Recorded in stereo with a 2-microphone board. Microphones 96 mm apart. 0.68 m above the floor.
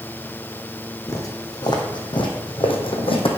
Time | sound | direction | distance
1.1 | footsteps | 35° left (ahead or behind) | 2.0 m